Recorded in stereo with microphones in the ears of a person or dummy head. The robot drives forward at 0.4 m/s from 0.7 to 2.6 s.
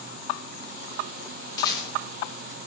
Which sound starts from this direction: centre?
A rattle, at 1.6 s.